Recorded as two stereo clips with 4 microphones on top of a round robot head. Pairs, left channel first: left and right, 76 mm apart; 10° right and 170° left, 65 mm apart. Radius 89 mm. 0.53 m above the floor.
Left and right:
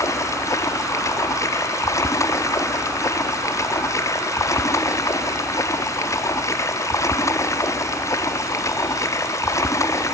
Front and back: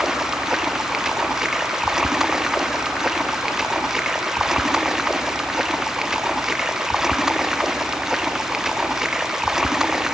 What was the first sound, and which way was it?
Running water, 90° left.